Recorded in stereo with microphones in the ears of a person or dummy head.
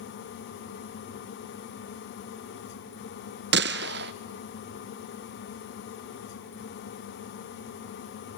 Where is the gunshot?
55° right (ahead or behind), 0.5 m.